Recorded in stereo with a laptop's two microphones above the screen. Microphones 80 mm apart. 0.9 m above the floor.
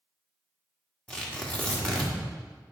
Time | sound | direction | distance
1.1 | tearing paper | 15° left (ahead or behind) | 1.5 m